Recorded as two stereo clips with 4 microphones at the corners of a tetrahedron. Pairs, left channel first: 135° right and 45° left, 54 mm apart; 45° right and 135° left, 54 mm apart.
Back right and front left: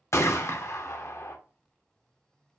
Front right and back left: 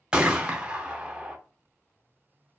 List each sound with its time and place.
0.1 s a gunshot: 155° right, 0.6 m